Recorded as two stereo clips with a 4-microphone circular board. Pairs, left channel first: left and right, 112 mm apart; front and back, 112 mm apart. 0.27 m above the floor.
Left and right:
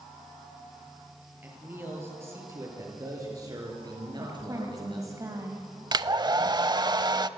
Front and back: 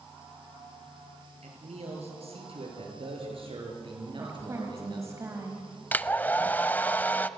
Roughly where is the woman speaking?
Behind right.